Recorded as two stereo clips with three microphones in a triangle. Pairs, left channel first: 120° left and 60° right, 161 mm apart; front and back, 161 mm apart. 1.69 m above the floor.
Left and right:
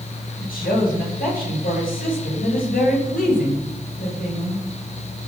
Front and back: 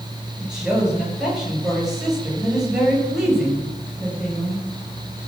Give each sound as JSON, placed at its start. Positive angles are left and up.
{"t": 0.4, "sound": "a woman speaking", "azimuth_deg": 90, "distance_m": 8.0}